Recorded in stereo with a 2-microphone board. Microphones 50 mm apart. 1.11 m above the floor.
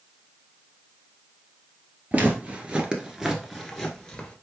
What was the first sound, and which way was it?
Footsteps, 30° right (ahead or behind).